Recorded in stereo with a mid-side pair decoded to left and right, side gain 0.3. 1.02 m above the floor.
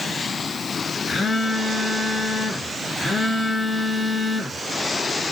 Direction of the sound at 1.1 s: 65° left.